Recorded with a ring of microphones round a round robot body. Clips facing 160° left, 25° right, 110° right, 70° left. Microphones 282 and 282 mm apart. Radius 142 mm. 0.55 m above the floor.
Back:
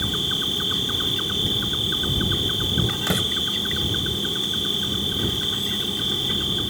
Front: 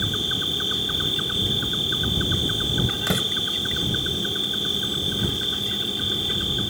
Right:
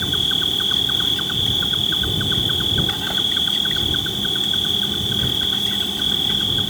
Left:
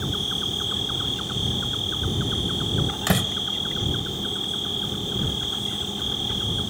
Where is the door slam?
70° left.